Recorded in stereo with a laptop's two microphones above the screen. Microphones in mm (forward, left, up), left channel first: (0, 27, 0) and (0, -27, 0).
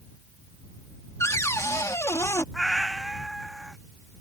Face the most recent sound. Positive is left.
turn(degrees=0)  # may be behind; listen again after turning